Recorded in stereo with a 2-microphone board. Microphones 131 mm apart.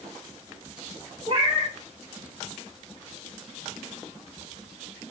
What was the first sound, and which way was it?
A cat meowing, 50° right (ahead or behind).